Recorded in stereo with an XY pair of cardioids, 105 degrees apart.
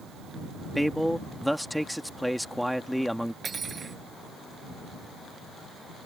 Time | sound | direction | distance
0.8 | a man speaking | straight ahead | ?
3.4 | cutlery clinking | 40° right | ?